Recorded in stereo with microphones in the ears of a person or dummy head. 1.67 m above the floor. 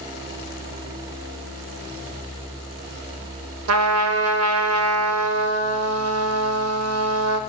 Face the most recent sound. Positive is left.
turn(degrees=-80)